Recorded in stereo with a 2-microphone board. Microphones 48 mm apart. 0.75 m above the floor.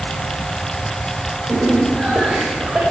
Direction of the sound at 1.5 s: 10° right (ahead or behind).